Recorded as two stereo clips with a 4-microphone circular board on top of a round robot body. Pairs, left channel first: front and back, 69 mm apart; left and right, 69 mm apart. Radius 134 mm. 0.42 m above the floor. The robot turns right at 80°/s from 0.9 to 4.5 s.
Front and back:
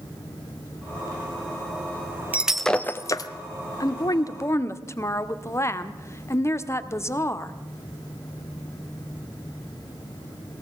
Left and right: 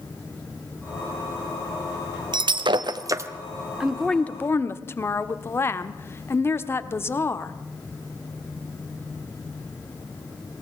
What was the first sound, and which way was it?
Breaking glass, 110° right.